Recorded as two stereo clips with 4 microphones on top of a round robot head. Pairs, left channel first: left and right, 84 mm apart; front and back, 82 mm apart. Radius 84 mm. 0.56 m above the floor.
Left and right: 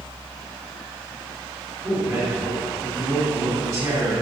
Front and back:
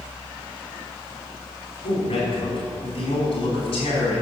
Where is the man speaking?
10° right, 4 m.